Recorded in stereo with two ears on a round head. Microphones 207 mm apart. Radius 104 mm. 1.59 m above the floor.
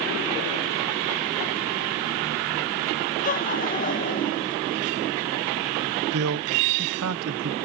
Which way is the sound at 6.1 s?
70° right (ahead or behind).